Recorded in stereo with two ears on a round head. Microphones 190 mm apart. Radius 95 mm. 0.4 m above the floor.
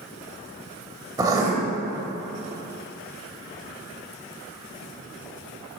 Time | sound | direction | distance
1.2 | writing | 15° right (ahead or behind) | 1.1 m